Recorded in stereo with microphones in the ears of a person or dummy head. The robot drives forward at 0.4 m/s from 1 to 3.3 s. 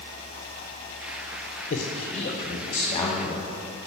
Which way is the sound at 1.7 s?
35° left (ahead or behind).